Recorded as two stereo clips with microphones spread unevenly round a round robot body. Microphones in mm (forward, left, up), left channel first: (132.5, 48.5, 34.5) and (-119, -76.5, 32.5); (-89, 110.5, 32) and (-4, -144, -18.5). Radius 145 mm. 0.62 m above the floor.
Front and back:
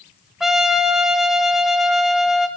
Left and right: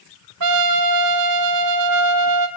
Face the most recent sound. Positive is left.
turn(degrees=-65)